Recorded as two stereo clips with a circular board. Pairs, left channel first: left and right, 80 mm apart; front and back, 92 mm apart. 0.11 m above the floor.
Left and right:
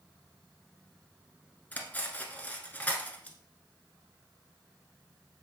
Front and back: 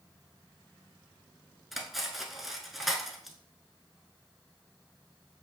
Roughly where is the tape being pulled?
No tape being pulled in this recording.